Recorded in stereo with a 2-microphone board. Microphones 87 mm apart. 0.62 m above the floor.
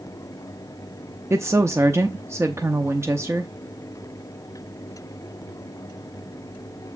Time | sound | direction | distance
1.3 | a woman speaking | 35° right (ahead or behind) | 0.8 m